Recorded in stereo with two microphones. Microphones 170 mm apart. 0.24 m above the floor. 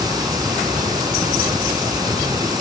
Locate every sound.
0.0 s running water: 20° right (ahead or behind)